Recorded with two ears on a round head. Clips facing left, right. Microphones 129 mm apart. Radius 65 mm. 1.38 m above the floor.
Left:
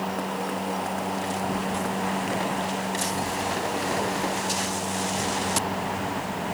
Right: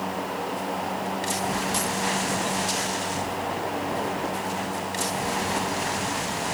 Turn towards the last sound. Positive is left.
No sound to turn to.